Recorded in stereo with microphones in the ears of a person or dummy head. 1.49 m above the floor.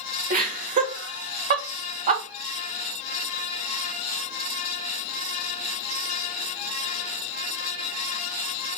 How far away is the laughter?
About 0.9 m.